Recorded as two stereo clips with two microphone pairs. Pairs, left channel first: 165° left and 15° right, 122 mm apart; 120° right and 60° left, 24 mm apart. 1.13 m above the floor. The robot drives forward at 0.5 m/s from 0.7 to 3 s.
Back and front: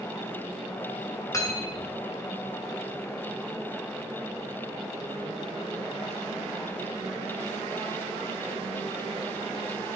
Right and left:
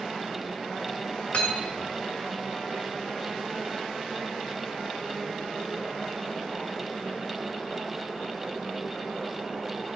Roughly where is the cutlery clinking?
Behind right.